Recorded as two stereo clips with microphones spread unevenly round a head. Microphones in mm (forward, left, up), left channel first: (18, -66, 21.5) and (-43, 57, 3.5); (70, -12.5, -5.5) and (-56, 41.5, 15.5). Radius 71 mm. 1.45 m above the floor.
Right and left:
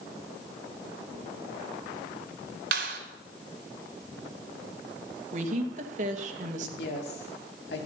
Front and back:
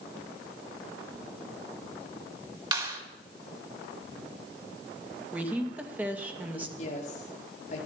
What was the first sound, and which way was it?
A clap, 100° left.